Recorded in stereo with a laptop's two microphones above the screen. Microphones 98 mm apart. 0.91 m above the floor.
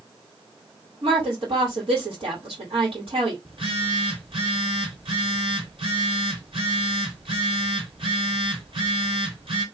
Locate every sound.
1.0 s a woman speaking: 70° right (ahead or behind), 2 m
3.5 s a phone buzzing: 60° right (ahead or behind), 1.9 m